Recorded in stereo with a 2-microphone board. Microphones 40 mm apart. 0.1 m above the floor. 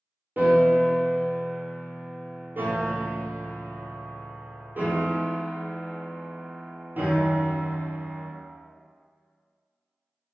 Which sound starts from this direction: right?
A piano, at 0.4 s.